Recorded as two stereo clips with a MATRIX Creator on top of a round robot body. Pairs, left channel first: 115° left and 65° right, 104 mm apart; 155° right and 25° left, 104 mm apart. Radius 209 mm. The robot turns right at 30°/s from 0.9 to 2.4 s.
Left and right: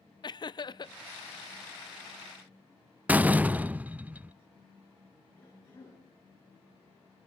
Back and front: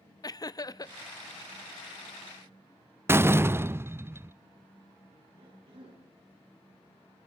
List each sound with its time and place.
0.2 s laughter: 155° left, 0.9 m
3.1 s a door slam: 10° right, 0.7 m
5.4 s a cough: 45° left, 10 m